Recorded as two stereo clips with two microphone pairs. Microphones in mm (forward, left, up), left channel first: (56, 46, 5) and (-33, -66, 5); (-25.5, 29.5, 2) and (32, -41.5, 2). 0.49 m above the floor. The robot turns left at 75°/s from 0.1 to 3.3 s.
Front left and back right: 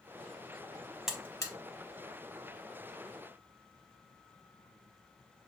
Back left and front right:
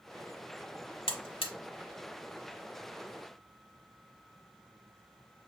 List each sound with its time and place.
1.1 s a buzzer: 145° left, 0.8 m; by 1.5 s 110° left, 0.8 m